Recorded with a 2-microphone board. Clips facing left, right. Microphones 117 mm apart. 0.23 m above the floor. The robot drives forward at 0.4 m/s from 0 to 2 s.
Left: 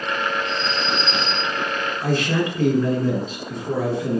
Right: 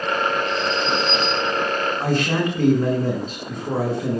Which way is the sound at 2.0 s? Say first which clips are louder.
Left 2 dB; 50° right (ahead or behind).